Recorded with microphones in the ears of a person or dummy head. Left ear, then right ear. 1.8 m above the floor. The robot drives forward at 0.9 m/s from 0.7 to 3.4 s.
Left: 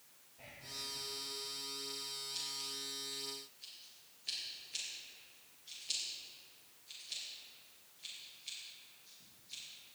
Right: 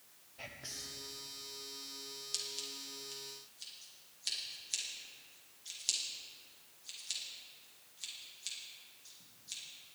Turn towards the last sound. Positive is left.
turn(degrees=-75)  # may be behind; listen again after turning